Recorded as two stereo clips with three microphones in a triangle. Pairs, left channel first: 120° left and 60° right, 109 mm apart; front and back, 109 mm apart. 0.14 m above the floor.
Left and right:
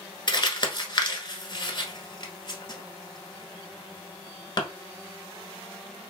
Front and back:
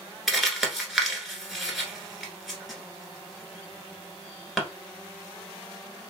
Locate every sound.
0.3 s crumpling: 95° left, 1.0 m